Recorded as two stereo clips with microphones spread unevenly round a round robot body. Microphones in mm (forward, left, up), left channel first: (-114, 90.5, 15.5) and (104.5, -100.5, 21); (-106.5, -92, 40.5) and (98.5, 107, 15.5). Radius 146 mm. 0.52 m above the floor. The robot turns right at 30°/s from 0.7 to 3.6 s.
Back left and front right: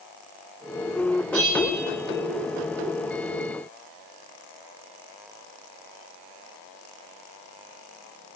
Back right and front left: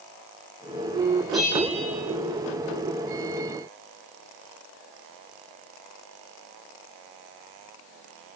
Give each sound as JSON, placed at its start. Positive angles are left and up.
{"t": 1.3, "sound": "a bell", "azimuth_deg": -45, "distance_m": 9.5}